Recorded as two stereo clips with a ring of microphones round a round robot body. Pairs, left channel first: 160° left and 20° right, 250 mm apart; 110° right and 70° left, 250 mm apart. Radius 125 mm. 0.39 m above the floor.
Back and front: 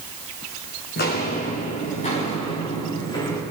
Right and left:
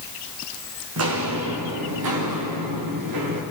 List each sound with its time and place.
1.0 s footsteps: 105° left, 2 m; by 3.4 s 85° left, 4 m